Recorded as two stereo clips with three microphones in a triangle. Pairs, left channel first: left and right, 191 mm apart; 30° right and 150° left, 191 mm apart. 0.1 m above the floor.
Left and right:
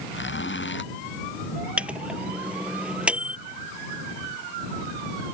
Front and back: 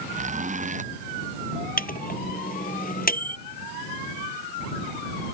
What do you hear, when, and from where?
0.1 s a zipper: 100° left
1.8 s a microwave: 5° right